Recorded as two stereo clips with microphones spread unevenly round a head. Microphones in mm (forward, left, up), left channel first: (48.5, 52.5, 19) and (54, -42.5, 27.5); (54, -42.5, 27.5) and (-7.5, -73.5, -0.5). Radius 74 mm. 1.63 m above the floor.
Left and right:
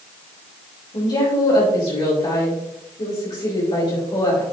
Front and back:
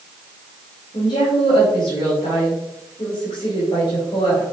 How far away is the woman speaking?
About 3 m.